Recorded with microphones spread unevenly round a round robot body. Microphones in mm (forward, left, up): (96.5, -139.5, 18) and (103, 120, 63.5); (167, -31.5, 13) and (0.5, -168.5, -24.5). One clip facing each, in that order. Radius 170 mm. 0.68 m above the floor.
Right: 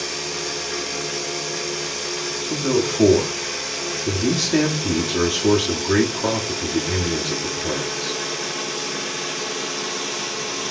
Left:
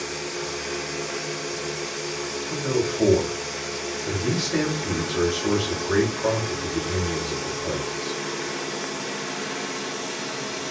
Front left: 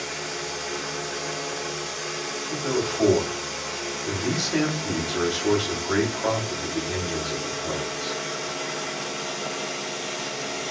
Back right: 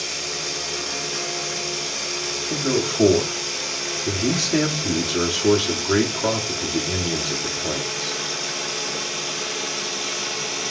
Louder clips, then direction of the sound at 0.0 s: Right 1 dB, even; 135° right.